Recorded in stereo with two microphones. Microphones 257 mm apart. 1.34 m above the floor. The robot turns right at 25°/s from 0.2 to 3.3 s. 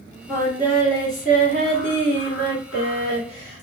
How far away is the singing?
About 1.5 m.